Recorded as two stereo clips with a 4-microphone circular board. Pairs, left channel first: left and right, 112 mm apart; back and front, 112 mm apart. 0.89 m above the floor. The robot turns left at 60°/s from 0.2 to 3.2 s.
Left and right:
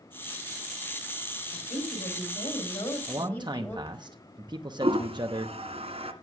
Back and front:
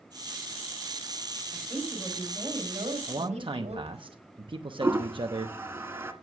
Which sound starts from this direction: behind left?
A woman speaking, at 1.5 s.